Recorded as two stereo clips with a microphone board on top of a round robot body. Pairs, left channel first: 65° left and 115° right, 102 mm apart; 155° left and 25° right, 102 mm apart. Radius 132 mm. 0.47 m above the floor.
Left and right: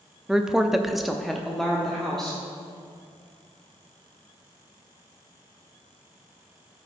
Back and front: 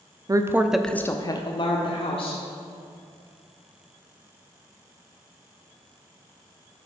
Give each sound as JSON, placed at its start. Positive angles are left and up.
{"t": 0.3, "sound": "a woman speaking", "azimuth_deg": -30, "distance_m": 0.9}